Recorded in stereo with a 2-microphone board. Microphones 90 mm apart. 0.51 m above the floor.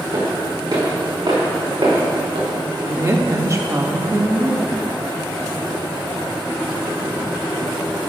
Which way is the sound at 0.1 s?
40° right (ahead or behind).